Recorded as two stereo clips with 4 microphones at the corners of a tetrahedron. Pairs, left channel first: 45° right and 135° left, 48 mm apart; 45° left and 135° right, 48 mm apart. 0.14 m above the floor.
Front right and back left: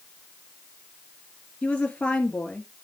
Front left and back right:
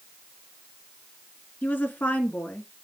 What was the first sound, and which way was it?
A woman speaking, 10° left.